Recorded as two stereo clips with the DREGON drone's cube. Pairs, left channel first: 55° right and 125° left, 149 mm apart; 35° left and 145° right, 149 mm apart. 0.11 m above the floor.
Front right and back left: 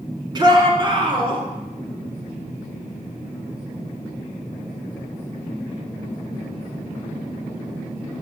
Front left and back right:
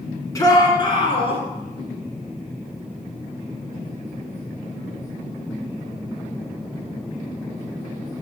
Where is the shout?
85° left, 2 m; by 1.4 s 75° left, 3 m.